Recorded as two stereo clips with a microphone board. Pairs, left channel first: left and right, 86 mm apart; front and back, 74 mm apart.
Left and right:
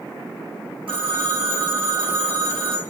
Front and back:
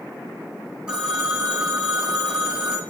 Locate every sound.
0.9 s a phone ringing: 100° right, 3 m